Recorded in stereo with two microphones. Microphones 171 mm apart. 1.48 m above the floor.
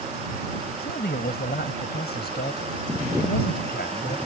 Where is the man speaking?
70° left (ahead or behind).